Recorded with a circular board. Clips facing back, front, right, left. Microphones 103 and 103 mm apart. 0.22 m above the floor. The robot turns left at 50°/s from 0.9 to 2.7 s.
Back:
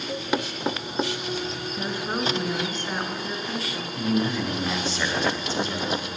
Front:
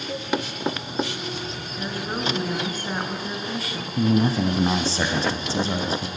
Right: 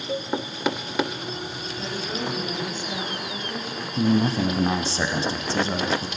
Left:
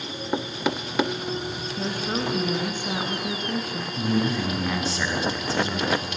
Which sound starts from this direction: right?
A cowbell, at 0.1 s.